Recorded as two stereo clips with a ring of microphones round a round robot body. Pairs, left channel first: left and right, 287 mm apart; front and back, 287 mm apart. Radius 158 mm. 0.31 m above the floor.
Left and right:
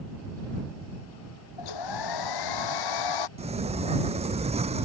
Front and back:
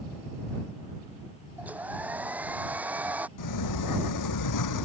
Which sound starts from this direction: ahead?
A sliding door, at 3.4 s.